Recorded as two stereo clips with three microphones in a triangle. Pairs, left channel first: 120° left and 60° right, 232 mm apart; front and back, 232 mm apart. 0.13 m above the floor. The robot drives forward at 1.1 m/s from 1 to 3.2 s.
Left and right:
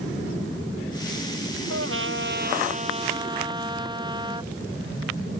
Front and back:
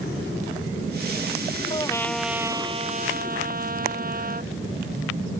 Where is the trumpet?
70° right; by 4.5 s 130° right.